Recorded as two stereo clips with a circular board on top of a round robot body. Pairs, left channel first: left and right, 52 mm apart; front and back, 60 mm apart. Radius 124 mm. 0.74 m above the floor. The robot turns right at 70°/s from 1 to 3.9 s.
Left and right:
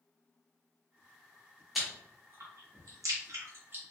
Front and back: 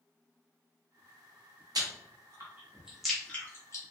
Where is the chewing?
Straight behind, 0.9 m; by 3.8 s 35° right, 0.9 m.